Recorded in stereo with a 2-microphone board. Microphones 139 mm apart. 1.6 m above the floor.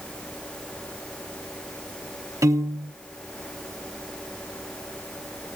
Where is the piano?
20° right (ahead or behind), 1.1 m.